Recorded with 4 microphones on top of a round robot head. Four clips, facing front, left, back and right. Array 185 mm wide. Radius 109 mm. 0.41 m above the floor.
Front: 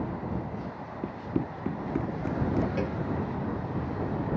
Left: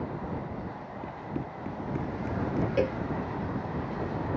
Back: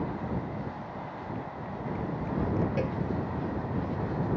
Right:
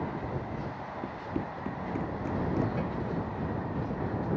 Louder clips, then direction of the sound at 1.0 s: Right 1 dB, front 5 dB; 10° right.